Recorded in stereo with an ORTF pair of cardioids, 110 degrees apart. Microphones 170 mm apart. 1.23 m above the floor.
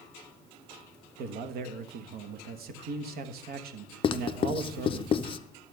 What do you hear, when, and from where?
1.2 s a man speaking: 65° right, 1.2 m
4.0 s writing: 35° left, 0.5 m